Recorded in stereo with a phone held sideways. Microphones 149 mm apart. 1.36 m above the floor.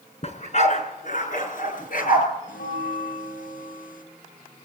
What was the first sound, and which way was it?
A dog barking, 45° left (ahead or behind).